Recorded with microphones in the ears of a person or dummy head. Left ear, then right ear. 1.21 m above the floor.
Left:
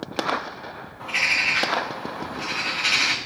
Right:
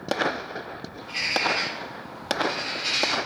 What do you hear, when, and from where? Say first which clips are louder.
1.0 s a bird: left 4 dB; 40° left (ahead or behind), 0.5 m